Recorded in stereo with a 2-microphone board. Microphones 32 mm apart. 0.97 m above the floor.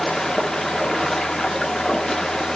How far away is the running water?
About 0.8 m.